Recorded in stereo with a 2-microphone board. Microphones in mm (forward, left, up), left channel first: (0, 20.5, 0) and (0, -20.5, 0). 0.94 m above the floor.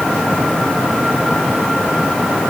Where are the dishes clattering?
No dishes clattering in this recording.